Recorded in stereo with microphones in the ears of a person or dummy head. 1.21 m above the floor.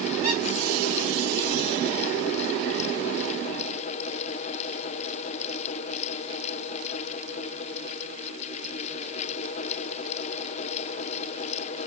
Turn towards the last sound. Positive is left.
turn(degrees=15)  # may be behind; listen again after turning